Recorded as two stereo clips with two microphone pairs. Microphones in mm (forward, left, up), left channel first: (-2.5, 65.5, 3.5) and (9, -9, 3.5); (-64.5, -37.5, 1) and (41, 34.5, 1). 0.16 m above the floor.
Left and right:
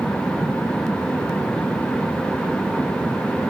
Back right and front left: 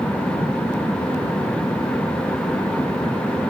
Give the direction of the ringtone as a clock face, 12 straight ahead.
I don't hear a ringtone.